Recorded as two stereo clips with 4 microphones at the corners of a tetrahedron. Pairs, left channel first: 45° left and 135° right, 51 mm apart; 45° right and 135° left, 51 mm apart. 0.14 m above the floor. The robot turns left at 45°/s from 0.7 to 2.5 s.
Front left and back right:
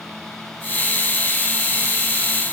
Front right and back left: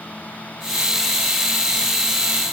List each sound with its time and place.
Only background noise.